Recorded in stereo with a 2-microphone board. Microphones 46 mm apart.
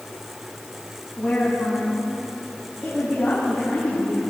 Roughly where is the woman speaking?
Centre.